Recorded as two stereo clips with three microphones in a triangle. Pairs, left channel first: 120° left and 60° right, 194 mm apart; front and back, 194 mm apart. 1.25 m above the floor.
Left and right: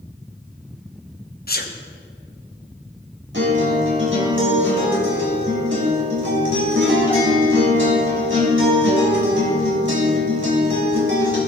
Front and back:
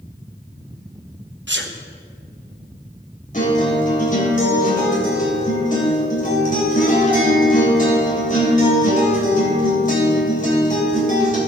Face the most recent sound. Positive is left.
turn(degrees=-45)